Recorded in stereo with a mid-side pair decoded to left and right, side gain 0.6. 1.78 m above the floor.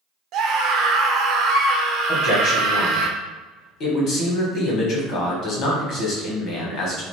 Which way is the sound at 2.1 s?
60° left.